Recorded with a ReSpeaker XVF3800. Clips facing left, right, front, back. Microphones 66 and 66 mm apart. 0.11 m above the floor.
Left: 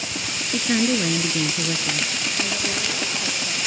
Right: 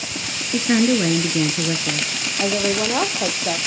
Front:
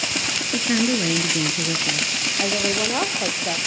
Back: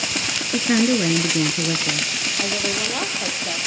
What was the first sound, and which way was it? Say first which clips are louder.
A woman speaking: right 4 dB, back 3 dB; 130° right.